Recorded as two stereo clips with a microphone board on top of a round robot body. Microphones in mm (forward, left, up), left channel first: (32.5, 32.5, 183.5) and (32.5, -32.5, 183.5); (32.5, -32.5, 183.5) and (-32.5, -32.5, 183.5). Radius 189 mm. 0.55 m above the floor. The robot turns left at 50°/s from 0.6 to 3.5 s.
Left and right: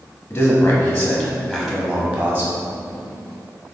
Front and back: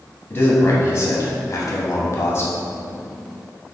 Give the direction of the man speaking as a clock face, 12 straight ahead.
10 o'clock.